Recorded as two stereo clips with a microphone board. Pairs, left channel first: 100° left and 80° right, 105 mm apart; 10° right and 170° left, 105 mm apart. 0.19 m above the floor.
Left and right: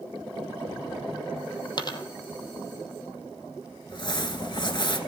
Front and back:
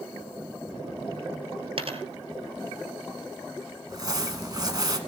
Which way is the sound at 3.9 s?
130° left.